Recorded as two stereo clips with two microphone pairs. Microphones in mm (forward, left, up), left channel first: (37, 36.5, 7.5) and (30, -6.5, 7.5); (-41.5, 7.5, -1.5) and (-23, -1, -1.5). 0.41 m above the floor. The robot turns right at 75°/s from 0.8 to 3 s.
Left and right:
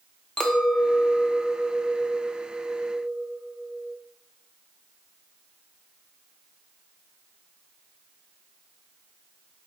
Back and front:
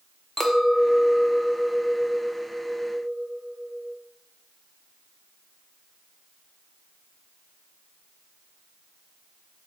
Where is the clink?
130° left, 0.6 m; by 4.0 s 65° right, 0.6 m.